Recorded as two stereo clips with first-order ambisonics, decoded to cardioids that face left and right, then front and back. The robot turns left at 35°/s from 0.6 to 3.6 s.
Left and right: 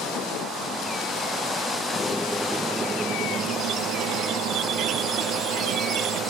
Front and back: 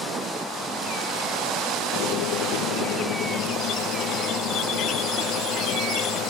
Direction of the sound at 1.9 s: 15° left.